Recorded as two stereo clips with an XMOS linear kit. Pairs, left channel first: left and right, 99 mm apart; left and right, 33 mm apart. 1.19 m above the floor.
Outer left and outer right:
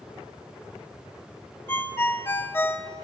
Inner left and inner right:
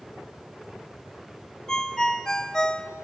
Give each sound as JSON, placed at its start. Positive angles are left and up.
{"t": 1.7, "sound": "a ringtone", "side_deg": 25, "distance_m": 0.7}